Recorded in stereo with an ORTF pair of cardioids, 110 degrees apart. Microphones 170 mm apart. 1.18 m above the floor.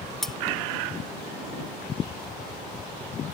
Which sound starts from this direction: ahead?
Cutlery clinking, at 0.2 s.